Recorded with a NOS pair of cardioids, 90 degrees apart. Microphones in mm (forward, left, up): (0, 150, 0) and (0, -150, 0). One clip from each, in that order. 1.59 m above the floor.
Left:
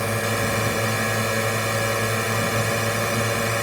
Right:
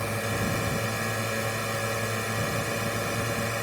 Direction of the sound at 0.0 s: 45° left.